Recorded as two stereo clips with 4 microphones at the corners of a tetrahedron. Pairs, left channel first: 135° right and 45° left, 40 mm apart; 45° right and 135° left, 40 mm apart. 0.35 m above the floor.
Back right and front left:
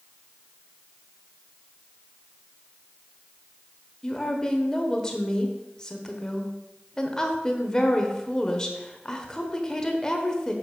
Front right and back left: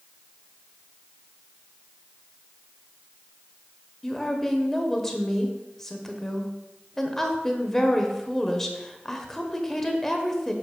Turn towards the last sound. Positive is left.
turn(degrees=-105)